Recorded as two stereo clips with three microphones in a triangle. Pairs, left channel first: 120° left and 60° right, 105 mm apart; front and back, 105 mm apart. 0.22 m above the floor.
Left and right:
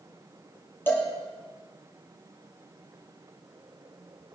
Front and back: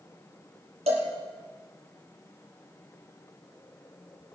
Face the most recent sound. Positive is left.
turn(degrees=-170)